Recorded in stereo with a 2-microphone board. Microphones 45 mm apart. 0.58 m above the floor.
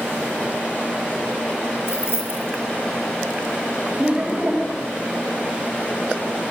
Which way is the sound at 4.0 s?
30° right (ahead or behind).